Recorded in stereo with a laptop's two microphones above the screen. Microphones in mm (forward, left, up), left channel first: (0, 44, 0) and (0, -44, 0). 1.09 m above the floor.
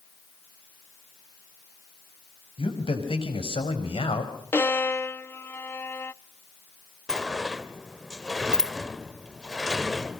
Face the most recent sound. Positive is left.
turn(degrees=-5)  # may be behind; listen again after turning